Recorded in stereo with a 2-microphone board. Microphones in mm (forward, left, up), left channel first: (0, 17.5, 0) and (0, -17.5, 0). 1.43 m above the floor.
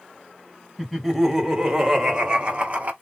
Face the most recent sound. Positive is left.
turn(degrees=-45)  # may be behind; listen again after turning